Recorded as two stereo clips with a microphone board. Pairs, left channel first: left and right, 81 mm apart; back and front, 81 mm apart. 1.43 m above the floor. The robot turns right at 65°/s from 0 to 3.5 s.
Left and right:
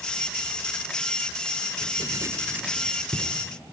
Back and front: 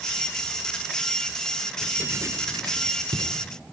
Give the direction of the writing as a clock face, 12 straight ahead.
2 o'clock.